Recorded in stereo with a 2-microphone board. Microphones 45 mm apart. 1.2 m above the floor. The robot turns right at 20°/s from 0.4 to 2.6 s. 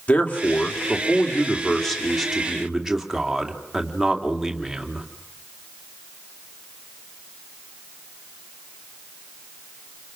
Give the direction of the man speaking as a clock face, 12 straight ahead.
7 o'clock.